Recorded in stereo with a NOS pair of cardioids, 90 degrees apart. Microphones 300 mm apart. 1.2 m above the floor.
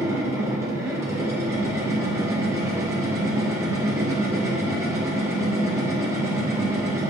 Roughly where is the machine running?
Ahead.